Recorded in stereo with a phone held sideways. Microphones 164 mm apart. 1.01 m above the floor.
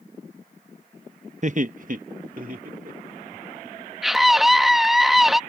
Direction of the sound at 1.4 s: 50° right (ahead or behind).